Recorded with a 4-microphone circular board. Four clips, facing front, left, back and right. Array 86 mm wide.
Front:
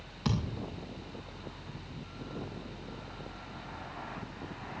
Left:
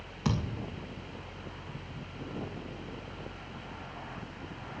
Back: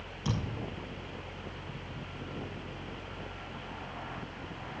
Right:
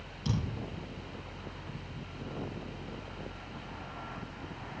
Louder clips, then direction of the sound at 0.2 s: Left 3 dB, front 2 dB; 65° left.